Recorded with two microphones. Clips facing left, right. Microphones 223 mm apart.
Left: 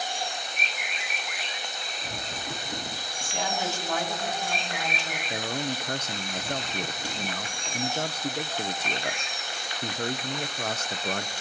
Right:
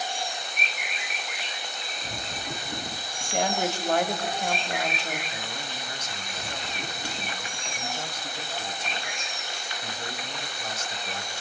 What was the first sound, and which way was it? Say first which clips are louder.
A woman speaking: right 5 dB; 65° right (ahead or behind).